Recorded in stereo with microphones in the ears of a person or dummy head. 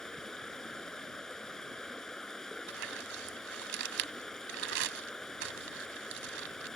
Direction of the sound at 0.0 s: 5° left (ahead or behind).